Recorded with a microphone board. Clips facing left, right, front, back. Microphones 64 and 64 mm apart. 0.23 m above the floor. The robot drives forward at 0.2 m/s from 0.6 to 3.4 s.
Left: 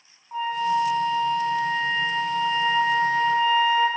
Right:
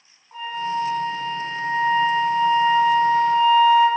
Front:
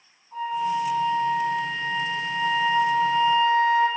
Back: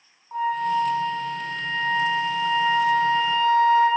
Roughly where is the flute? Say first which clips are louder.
Left 3 dB, back 3 dB; behind.